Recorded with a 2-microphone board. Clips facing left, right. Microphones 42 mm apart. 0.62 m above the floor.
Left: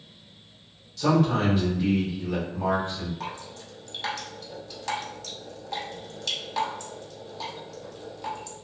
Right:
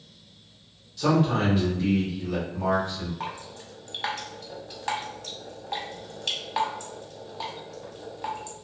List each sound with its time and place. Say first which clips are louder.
1.0 s a man speaking: even; 15° right (ahead or behind), 1.2 m; by 3.1 s 45° left (ahead or behind), 1.5 m
3.2 s dripping: right 1 dB; 30° right (ahead or behind), 0.6 m